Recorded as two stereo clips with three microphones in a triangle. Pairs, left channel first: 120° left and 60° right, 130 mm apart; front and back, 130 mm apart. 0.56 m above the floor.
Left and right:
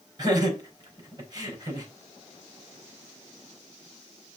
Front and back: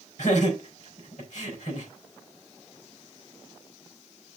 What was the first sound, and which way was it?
Laughter, 5° right.